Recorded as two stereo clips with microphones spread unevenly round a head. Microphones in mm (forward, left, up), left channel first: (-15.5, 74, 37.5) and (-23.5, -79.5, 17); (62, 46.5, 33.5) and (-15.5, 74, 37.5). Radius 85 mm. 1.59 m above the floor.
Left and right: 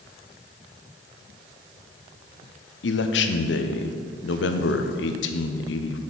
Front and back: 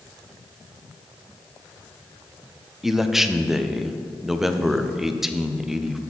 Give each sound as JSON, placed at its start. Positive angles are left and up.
{"t": 2.8, "sound": "a man speaking", "azimuth_deg": 75, "distance_m": 0.7}